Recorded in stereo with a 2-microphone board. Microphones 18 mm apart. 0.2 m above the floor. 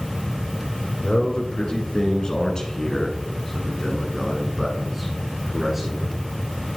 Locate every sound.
1.0 s a man speaking: 55° left (ahead or behind), 2 m; by 6.2 s 30° right (ahead or behind), 2 m